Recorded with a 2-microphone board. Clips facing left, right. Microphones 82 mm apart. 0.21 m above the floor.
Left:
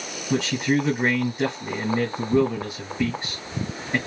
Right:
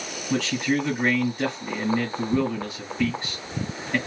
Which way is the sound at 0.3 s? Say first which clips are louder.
Left 2 dB; 20° left (ahead or behind).